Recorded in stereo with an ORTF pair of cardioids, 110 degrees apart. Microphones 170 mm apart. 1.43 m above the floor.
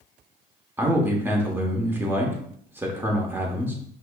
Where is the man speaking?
15° right, 0.9 m.